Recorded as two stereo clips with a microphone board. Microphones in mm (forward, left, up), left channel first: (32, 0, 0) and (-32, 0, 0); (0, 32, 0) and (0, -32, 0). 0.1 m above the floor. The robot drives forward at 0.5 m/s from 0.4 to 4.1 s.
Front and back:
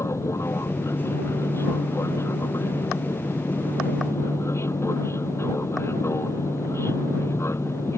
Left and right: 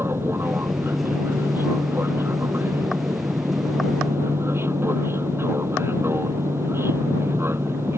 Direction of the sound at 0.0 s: 40° right.